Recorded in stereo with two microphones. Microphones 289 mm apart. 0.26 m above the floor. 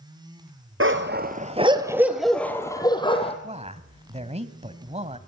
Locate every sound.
0.8 s a dog barking: 50° right (ahead or behind), 2 m; by 3.3 s 20° left (ahead or behind), 3.5 m
3.4 s a man speaking: 25° right (ahead or behind), 1.6 m